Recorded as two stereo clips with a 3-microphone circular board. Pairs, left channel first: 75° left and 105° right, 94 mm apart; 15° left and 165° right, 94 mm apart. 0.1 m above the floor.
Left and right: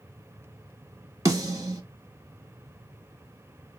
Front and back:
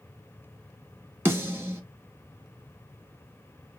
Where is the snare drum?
115° right, 0.8 m.